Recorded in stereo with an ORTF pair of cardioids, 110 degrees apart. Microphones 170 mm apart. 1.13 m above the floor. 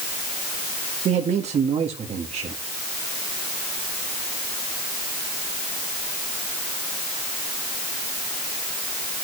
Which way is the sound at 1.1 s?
45° right.